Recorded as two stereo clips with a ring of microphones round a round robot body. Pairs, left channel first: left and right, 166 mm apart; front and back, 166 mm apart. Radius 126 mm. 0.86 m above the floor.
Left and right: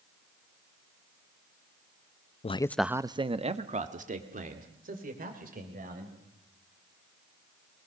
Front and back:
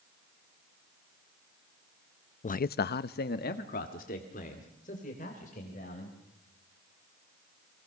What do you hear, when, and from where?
2.4 s a man speaking: 40° left, 0.6 m; by 6.1 s 60° right, 4 m